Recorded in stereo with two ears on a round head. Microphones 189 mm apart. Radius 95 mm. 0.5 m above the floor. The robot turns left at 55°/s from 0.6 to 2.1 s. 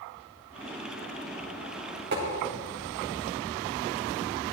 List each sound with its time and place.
2.1 s tapping: 50° right (ahead or behind), 2.5 m